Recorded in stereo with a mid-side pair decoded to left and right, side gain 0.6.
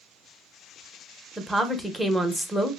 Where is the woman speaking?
Straight ahead, 0.7 m.